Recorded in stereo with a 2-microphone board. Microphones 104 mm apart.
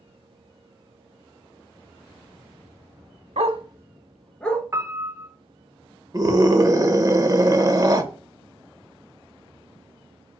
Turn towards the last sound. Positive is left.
turn(degrees=-35)  # may be behind; listen again after turning